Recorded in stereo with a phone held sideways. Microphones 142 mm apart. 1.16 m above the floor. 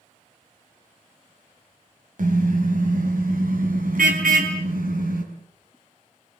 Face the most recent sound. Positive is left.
turn(degrees=-80)